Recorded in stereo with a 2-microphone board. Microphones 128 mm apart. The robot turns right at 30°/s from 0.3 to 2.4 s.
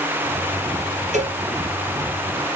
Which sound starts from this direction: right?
A cowbell, at 1.1 s.